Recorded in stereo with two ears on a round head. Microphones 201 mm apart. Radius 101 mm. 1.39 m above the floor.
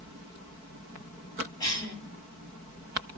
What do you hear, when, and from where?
1.6 s a cough: 15° left (ahead or behind), 1.6 m